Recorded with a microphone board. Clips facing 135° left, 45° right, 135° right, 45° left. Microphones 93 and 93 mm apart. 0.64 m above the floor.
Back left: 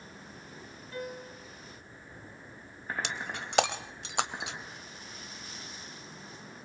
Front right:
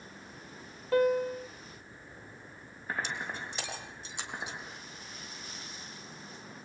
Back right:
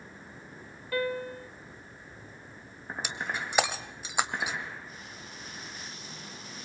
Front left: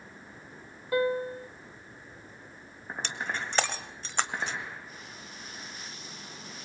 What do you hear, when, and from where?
0.9 s a piano: 20° right, 0.5 m
3.0 s breaking glass: 145° left, 1.3 m